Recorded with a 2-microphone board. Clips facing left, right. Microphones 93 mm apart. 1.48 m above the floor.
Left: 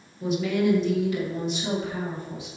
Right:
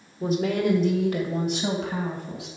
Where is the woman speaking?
40° right (ahead or behind), 1.6 m; by 2.5 s 65° right (ahead or behind), 3 m.